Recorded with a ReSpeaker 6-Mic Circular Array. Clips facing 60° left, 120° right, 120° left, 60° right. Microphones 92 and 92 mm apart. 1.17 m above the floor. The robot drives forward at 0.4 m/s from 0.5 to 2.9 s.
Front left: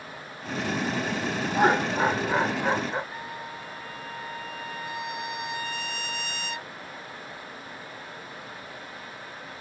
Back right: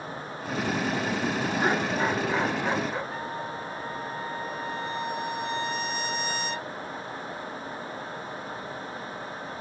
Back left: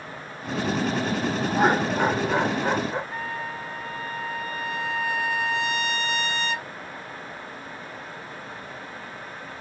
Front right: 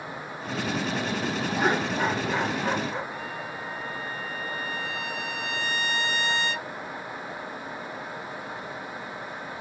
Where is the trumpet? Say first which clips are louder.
Back right 4 dB, back left 3 dB; 175° right, 3 m.